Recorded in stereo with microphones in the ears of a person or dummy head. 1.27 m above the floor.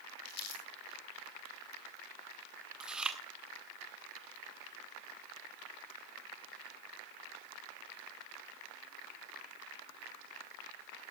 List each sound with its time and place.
0.2 s crumpling: 55° left (ahead or behind), 4 m
2.8 s chewing: 5° right (ahead or behind), 1.5 m